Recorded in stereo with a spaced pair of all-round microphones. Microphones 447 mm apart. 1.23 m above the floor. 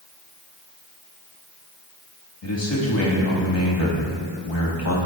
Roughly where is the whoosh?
No whoosh in this recording.